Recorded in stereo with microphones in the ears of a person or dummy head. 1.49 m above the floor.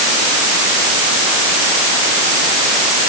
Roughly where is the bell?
I don't hear a bell.